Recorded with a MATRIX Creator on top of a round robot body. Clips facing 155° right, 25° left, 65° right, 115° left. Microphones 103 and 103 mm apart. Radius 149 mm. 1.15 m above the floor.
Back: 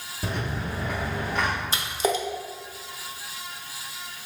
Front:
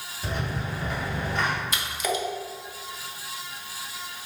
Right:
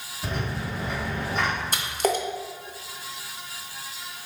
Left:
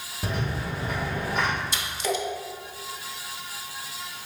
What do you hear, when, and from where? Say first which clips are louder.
0.2 s a rattle: back 1 dB, left 1 dB; 165° left, 0.7 m
1.7 s a splash: back 3 dB, right 3 dB; 100° right, 0.6 m